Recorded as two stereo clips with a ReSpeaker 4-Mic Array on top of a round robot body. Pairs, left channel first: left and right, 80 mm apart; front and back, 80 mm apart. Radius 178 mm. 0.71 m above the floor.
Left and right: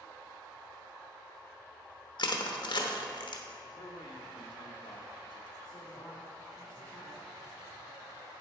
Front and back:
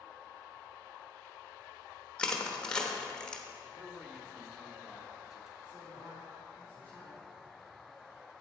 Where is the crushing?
80° left, 1.0 m.